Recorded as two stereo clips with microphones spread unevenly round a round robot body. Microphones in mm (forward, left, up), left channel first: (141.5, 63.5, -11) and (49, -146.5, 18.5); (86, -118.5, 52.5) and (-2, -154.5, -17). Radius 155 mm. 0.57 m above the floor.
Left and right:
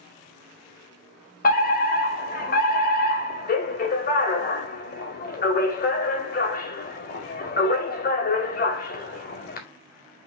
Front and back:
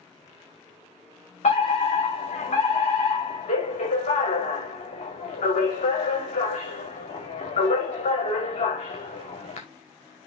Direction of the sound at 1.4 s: 80° left.